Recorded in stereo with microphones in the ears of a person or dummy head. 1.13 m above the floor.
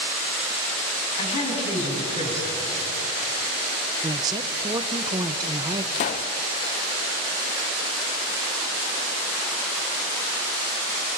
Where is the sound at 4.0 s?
20° right (ahead or behind), 0.8 m.